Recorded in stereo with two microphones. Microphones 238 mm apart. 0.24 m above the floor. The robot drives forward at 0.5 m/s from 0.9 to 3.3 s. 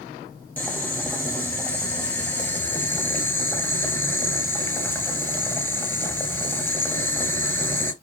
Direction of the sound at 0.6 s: 5° left (ahead or behind).